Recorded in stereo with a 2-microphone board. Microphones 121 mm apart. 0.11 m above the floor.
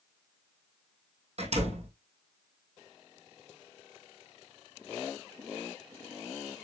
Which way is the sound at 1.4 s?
60° right (ahead or behind).